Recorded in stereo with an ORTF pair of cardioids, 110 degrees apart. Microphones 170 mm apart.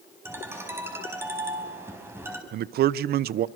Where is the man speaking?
60° right, 0.8 m.